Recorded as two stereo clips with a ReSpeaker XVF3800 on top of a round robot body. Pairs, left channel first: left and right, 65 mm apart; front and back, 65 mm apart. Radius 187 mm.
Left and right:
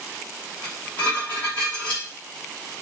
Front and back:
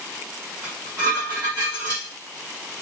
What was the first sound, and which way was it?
Dishes clattering, 155° left.